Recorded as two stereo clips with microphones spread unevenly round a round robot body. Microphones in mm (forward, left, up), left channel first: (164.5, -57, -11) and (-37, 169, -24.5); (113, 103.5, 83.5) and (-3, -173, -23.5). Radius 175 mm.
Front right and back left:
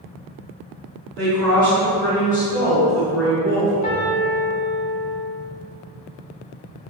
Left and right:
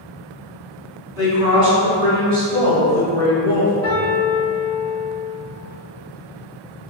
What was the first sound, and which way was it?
A woman speaking, 130° right.